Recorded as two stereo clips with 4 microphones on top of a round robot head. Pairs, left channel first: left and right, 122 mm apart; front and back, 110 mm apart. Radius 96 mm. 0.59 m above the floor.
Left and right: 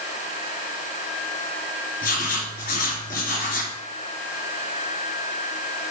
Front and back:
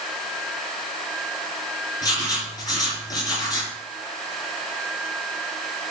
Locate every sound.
2.0 s writing: 55° left, 3 m